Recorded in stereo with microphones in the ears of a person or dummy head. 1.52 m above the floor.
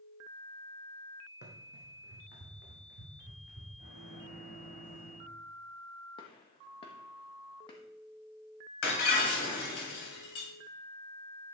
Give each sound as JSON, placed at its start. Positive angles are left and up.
{"t": 1.4, "sound": "running footsteps", "side_deg": 55, "distance_m": 2.5}
{"t": 3.8, "sound": "a microwave", "side_deg": 50, "distance_m": 6.0}
{"t": 6.2, "sound": "a gunshot", "side_deg": 35, "distance_m": 1.5}
{"t": 8.8, "sound": "breaking glass", "side_deg": 65, "distance_m": 3.5}